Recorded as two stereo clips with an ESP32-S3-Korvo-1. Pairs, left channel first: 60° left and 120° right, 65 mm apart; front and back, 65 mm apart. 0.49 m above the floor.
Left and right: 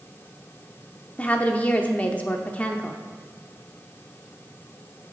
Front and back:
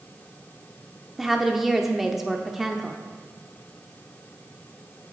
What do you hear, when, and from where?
1.2 s a woman speaking: 100° left, 0.7 m